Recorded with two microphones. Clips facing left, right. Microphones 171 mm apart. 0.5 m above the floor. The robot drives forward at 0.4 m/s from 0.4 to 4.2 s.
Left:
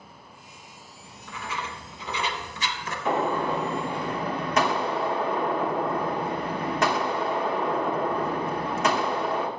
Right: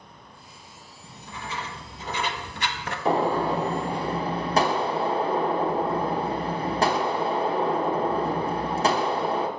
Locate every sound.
1.0 s writing: 30° right (ahead or behind), 1.0 m; by 3.0 s 65° right (ahead or behind), 0.6 m
3.0 s a gunshot: 35° right (ahead or behind), 0.7 m